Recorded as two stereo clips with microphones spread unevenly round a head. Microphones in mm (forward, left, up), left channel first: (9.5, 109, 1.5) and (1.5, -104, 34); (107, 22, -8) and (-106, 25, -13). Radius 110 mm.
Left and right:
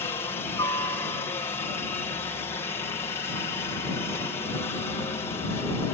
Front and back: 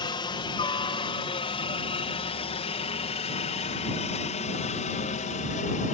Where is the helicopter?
40° left; by 6.0 s 30° left.